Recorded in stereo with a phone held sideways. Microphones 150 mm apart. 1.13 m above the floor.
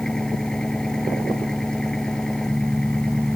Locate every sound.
0.0 s an engine running: 5° left (ahead or behind)